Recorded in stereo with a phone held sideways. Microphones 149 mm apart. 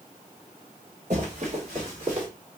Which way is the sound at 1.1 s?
50° right (ahead or behind).